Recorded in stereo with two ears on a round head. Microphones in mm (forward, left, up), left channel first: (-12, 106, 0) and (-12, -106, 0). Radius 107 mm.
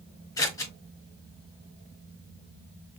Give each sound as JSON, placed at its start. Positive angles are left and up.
{"t": 0.4, "sound": "scissors", "side_deg": 15, "distance_m": 1.4}